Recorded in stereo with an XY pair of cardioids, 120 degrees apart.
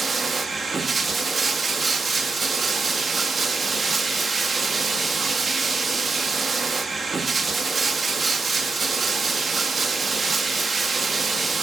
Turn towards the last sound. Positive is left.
turn(degrees=-30)